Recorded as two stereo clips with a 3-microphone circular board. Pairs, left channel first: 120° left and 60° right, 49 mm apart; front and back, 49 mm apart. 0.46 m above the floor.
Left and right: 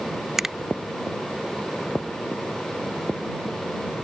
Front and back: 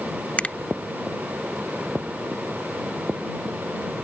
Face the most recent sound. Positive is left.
turn(degrees=10)